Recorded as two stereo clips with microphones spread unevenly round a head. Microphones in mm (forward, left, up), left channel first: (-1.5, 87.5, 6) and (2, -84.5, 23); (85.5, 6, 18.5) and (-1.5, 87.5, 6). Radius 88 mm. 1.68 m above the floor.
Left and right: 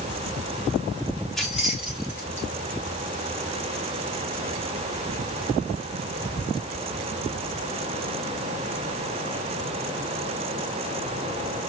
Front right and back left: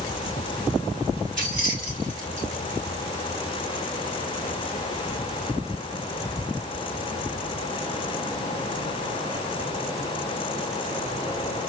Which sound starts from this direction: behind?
Keys jangling, at 1.4 s.